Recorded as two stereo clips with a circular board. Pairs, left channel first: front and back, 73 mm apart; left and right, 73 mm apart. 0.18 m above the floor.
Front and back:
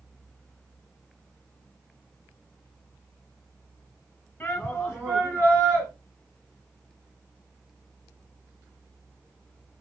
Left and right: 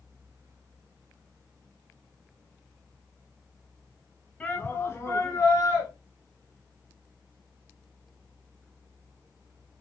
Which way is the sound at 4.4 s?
35° left.